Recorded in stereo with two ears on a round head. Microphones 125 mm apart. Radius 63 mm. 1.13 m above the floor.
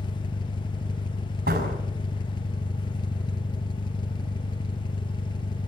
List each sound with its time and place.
0.0 s an engine running: 35° left (ahead or behind), 0.7 m
1.5 s a door slam: 70° right (ahead or behind), 5.5 m